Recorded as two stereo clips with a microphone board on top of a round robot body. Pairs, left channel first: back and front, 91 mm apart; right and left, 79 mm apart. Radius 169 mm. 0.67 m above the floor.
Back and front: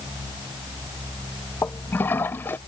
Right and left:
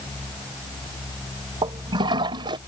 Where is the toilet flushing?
110° left.